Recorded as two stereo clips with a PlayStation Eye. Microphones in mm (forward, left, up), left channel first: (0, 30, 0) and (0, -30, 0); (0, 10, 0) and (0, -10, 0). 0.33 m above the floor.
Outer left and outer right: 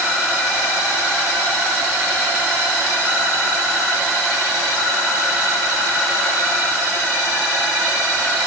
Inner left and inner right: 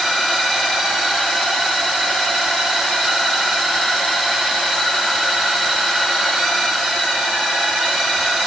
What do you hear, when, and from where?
Only background noise.